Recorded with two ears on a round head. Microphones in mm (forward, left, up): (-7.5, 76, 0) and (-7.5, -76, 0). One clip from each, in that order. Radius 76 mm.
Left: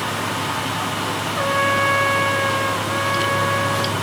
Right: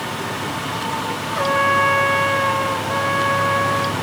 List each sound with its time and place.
1.4 s a trumpet: centre (ahead or behind), 0.6 m